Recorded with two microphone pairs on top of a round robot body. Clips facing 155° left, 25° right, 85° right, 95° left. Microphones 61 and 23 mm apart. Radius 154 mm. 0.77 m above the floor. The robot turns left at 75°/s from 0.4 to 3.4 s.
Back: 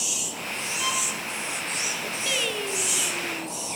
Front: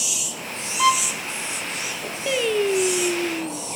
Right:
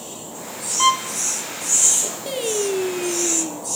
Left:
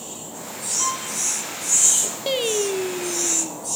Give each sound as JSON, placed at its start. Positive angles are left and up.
{"t": 0.8, "sound": "a violin", "azimuth_deg": -50, "distance_m": 1.0}
{"t": 2.3, "sound": "singing", "azimuth_deg": 45, "distance_m": 0.9}